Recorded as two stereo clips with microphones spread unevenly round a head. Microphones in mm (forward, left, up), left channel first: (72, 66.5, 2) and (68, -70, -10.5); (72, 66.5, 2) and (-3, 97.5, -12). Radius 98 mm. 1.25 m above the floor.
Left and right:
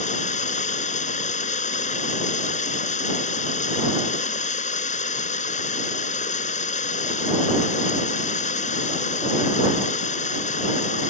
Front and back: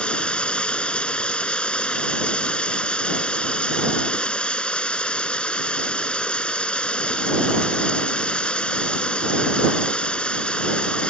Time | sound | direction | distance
0.0 | running water | 55° left | ?